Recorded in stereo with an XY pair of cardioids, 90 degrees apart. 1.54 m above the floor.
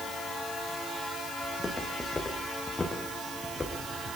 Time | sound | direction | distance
1.4 | footsteps | 20° left | 7 m